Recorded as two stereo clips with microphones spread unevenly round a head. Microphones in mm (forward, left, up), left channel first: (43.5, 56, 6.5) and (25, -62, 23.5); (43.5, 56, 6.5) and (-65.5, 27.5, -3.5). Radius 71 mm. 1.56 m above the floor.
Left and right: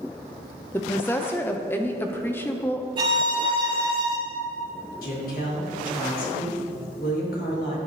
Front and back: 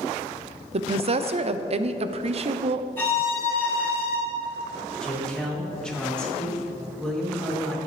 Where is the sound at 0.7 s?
160° left, 0.7 m.